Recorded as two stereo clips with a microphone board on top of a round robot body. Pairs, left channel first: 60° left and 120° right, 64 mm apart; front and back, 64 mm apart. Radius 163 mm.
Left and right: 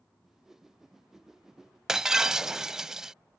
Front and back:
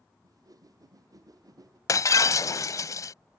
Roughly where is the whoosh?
Behind left.